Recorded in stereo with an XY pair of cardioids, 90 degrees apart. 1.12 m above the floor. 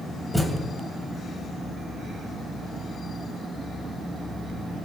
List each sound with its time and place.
0.3 s a thud: 5° left, 2.5 m